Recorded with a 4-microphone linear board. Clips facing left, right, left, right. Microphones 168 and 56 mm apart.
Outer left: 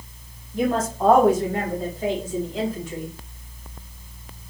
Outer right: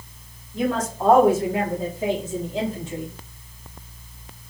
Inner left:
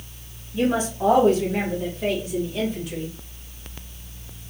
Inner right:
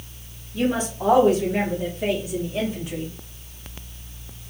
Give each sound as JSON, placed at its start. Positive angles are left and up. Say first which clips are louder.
{"t": 0.5, "sound": "a woman speaking", "louder": "outer left 1 dB, inner left 1 dB", "side_deg": 15, "distance_m": 1.4}